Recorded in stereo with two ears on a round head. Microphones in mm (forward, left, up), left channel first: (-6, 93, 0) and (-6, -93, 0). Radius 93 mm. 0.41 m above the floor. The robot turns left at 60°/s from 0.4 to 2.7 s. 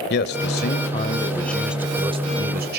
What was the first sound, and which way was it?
A man speaking, 75° left.